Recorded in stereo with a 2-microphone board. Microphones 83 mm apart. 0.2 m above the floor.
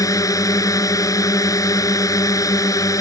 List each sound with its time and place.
0.0 s a drone: 45° left (ahead or behind)